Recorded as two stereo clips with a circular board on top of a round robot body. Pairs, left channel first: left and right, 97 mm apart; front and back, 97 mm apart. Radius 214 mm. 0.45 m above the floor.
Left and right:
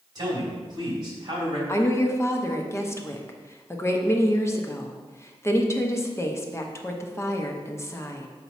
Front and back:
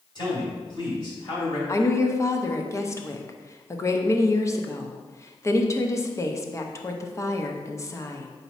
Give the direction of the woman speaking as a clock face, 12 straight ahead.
11 o'clock.